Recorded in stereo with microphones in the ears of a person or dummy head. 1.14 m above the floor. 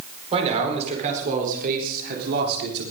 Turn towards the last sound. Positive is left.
turn(degrees=-65)  # may be behind; listen again after turning